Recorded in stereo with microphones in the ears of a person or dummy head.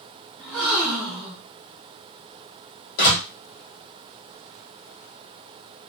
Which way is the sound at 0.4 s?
Centre (ahead or behind).